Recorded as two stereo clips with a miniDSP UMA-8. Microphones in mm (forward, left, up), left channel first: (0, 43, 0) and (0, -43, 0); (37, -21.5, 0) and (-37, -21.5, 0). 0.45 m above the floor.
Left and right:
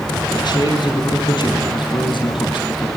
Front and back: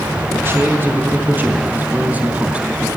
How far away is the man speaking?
About 5 m.